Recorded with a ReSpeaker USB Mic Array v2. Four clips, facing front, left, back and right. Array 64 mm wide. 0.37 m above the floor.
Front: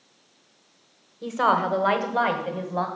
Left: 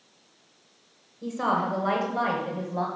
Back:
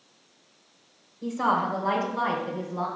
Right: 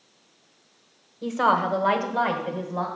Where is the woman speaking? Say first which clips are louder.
Right 4 dB, front 3 dB; 50° right, 1.2 m; by 2.9 s straight ahead, 2 m.